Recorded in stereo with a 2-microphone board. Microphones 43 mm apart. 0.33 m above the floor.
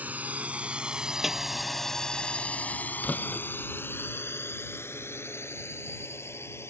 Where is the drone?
40° right (ahead or behind); by 6.7 s 80° left.